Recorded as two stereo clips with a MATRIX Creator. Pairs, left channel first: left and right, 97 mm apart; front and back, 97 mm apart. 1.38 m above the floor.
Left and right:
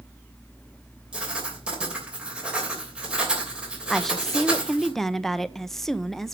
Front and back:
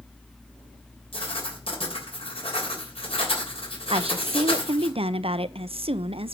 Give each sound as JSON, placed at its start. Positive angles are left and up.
{"t": 1.1, "sound": "writing", "azimuth_deg": -10, "distance_m": 3.0}
{"t": 3.9, "sound": "a woman speaking", "azimuth_deg": 175, "distance_m": 0.6}